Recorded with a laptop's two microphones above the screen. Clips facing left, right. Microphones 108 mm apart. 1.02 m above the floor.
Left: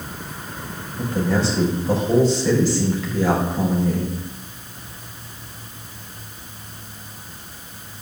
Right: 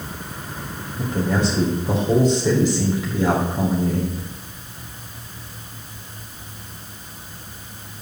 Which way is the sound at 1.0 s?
15° right (ahead or behind).